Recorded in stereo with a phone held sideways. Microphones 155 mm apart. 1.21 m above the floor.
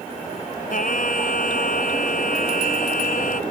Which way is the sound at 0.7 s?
65° left (ahead or behind).